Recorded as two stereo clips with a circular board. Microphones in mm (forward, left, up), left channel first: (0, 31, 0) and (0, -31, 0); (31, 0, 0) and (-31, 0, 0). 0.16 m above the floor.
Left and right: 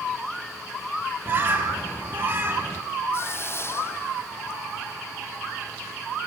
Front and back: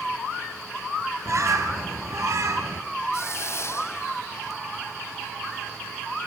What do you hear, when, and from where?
1.2 s a bird: 145° right, 3.5 m
3.1 s a hiss: 45° left, 1.1 m